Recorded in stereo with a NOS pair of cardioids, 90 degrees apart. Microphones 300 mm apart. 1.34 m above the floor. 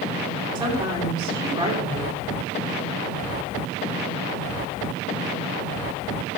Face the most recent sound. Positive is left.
turn(degrees=-15)